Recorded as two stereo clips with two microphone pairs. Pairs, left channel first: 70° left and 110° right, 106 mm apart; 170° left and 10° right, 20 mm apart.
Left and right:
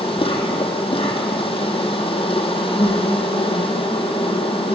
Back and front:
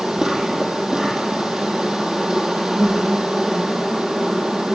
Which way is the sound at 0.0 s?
35° left.